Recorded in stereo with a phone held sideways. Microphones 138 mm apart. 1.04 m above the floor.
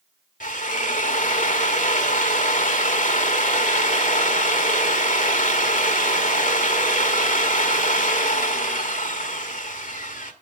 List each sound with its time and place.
0.4 s a drill: 80° left, 1.5 m